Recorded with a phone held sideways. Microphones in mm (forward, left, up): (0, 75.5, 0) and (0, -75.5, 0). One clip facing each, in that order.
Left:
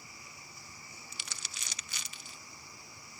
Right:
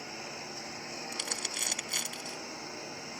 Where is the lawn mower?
80° right.